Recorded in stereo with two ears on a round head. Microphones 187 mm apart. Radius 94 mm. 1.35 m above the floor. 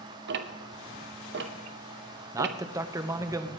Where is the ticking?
55° right (ahead or behind), 0.8 m.